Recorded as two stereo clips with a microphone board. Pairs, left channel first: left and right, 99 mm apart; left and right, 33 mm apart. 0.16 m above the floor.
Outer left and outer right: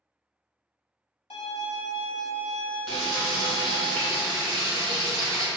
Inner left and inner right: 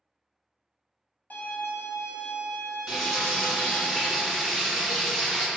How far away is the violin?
About 0.7 m.